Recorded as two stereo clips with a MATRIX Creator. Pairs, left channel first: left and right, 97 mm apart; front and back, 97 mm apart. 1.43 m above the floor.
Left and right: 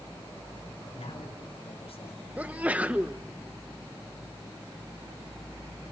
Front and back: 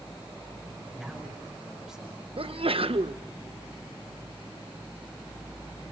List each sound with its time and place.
0.9 s a man speaking: 95° left, 5.5 m
2.4 s a sneeze: 165° right, 1.0 m